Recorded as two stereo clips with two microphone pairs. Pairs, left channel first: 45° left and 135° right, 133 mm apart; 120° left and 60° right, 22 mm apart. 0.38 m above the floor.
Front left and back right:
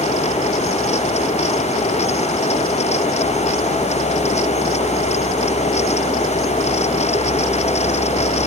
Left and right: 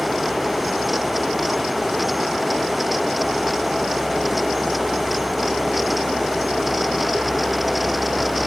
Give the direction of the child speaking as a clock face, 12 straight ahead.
I don't hear a child speaking.